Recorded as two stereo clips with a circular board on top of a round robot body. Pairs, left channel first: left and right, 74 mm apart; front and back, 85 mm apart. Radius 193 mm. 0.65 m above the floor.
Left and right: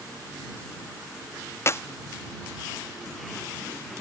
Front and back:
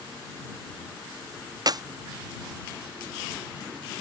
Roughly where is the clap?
Behind left.